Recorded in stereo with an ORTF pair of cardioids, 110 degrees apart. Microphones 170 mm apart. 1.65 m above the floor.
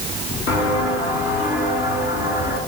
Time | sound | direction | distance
0.5 | footsteps | 70° left | 8.5 m